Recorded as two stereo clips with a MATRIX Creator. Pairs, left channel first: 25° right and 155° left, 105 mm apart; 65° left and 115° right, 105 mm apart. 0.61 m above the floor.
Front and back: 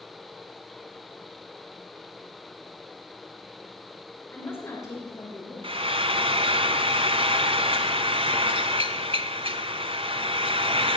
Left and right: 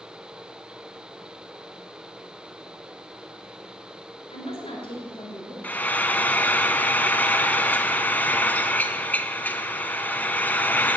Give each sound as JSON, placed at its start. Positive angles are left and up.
{"t": 4.3, "sound": "a woman speaking", "azimuth_deg": 50, "distance_m": 2.0}
{"t": 5.6, "sound": "frying", "azimuth_deg": 140, "distance_m": 0.9}